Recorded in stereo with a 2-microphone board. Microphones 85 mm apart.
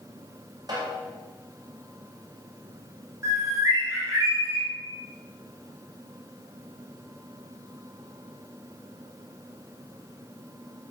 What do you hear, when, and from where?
0.7 s a snare drum: 50° right (ahead or behind), 5.5 m
3.2 s a bird: 35° right (ahead or behind), 4.5 m